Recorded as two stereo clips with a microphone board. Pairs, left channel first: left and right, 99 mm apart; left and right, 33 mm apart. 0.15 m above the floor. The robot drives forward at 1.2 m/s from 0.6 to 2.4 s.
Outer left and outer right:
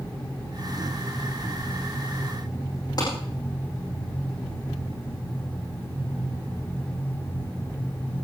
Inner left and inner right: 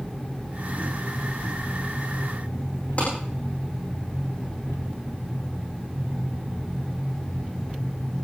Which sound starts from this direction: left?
A clap, at 3.0 s.